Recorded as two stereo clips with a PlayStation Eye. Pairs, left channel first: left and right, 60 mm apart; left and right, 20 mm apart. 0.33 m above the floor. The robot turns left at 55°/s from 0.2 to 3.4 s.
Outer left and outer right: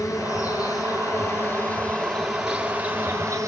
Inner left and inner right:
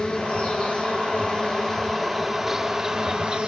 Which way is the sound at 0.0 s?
120° left.